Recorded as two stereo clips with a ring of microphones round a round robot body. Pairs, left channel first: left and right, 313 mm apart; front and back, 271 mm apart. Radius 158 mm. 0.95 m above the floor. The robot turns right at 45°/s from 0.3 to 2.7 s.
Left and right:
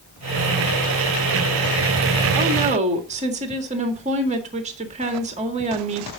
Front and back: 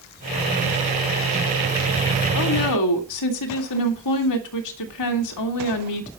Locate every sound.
2.4 s a woman speaking: 35° right, 1.9 m; by 6.1 s 20° right, 1.9 m